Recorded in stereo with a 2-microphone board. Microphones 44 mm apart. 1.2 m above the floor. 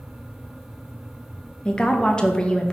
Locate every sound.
1.6 s a woman speaking: 20° left (ahead or behind), 0.8 m